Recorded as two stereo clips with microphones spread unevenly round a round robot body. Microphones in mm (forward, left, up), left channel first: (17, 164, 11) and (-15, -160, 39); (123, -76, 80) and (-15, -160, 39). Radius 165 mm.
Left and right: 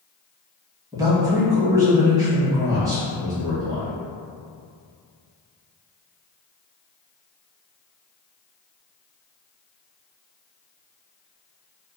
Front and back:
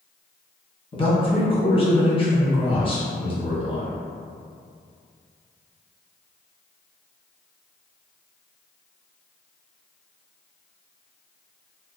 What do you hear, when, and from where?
0.9 s a man speaking: 20° right, 1.0 m